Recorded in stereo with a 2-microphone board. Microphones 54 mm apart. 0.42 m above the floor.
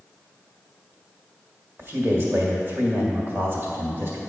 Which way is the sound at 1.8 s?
45° right (ahead or behind).